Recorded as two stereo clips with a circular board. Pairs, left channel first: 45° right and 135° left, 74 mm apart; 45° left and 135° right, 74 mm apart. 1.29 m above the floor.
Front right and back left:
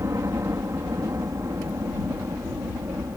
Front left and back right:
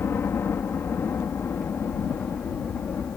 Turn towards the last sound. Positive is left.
turn(degrees=95)